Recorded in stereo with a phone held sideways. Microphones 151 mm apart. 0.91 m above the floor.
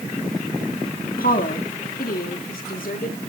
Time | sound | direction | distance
1.2 | a woman speaking | 70° left (ahead or behind) | 1.6 m